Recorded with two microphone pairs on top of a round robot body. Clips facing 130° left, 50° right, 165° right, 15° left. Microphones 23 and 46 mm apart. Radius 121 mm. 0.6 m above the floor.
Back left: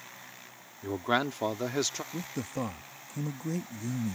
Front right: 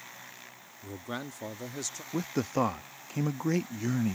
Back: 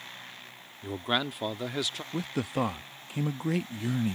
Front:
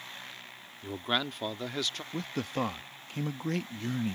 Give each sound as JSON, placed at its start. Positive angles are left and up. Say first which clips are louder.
{"t": 0.8, "sound": "a man speaking", "louder": "back left 10 dB, back 2 dB", "azimuth_deg": 110}
{"t": 2.1, "sound": "a man speaking", "louder": "front right 6 dB, back 4 dB", "azimuth_deg": -80}